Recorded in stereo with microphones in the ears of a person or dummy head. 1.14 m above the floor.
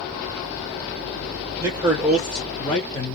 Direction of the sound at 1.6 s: 15° right (ahead or behind).